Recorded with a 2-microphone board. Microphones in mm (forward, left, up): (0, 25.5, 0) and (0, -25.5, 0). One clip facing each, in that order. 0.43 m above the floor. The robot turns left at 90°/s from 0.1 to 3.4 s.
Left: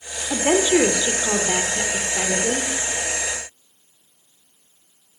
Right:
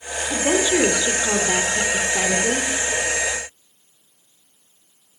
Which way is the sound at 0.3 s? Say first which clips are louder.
Left 2 dB; 30° left (ahead or behind).